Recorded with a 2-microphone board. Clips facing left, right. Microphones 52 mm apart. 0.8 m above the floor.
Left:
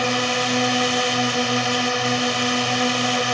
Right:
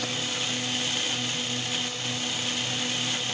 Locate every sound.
0.0 s a drone: 65° left (ahead or behind)